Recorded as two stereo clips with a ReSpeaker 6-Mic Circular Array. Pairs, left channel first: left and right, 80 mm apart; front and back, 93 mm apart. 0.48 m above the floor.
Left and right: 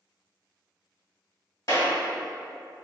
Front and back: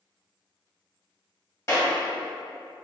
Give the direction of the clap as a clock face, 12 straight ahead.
10 o'clock.